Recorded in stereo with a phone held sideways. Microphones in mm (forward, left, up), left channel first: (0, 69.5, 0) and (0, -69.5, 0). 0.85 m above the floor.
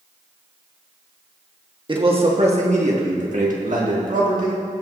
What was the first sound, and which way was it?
A man speaking, 35° right (ahead or behind).